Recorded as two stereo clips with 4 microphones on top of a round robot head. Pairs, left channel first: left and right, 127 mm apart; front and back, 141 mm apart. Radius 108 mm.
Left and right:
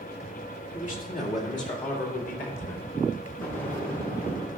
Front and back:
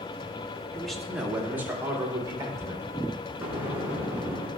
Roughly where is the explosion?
Left.